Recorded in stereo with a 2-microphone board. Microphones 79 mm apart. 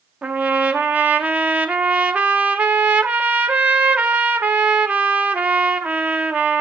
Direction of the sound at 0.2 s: 20° right (ahead or behind).